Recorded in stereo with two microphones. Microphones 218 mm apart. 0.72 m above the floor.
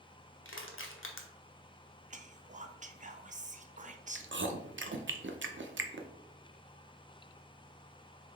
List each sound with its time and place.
0.5 s crushing: 70° left (ahead or behind), 0.8 m
2.1 s whispering: 35° right (ahead or behind), 0.5 m
4.2 s chewing: 60° right (ahead or behind), 0.5 m